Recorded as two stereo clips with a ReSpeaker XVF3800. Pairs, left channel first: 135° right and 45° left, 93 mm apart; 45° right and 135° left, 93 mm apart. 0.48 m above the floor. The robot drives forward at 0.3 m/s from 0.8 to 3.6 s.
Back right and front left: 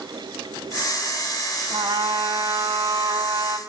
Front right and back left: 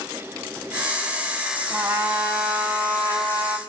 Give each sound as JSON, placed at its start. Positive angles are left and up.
{"t": 1.7, "sound": "a trumpet", "azimuth_deg": 70, "distance_m": 1.9}